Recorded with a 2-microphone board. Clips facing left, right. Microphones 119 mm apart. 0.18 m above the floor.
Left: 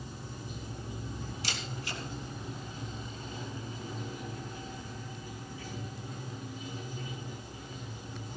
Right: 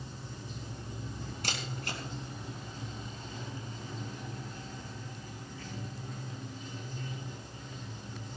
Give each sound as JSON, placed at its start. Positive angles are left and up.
{"t": 0.0, "sound": "running water", "side_deg": 10, "distance_m": 5.0}
{"t": 1.4, "sound": "a camera shutter", "side_deg": -55, "distance_m": 3.5}